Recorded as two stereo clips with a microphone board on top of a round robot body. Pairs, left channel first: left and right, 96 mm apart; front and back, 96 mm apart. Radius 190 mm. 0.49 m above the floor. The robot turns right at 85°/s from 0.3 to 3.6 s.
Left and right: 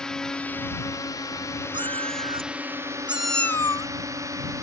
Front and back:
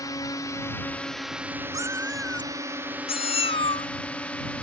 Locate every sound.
0.0 s a drone: 10° left; by 4.6 s 65° right
1.7 s a cat meowing: 130° right; by 3.9 s 30° left